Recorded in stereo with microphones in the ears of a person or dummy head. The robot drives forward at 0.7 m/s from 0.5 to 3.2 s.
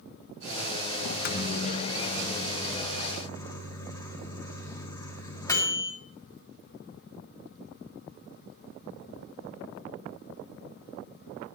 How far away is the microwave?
About 0.7 m.